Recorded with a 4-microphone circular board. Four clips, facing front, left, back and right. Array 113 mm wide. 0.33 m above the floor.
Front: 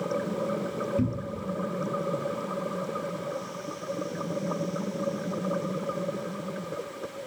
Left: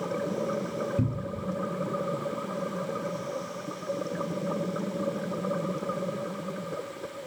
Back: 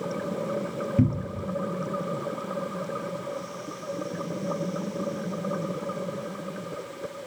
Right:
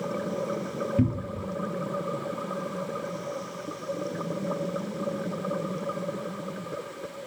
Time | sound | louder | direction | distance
1.0 | a cupboard door | right 4 dB, back 4 dB | 155° right | 1.2 m